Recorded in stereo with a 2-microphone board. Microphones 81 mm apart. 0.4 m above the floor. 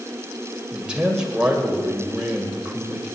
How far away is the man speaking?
About 2 m.